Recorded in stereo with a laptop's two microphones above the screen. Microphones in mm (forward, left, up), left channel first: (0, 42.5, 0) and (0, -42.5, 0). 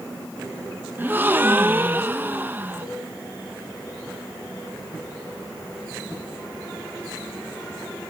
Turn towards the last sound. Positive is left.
turn(degrees=-90)